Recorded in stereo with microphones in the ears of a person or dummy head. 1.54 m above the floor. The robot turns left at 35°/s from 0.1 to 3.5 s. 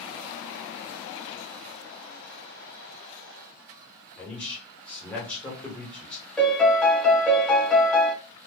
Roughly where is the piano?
Centre.